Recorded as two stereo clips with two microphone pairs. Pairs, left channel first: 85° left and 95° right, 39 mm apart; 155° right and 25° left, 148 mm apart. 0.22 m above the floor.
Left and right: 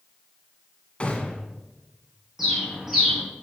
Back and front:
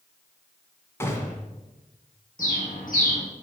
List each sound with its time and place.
1.0 s a gunshot: 140° left, 1.9 m
2.4 s a bird: 170° right, 3 m